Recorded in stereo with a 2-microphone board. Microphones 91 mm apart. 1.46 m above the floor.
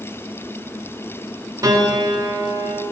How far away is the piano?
About 1.3 m.